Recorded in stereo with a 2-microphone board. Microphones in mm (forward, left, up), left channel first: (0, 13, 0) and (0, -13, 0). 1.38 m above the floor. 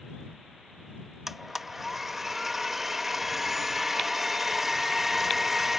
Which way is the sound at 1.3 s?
10° right (ahead or behind).